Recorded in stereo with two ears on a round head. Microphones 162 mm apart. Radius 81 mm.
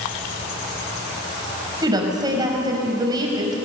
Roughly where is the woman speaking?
Right.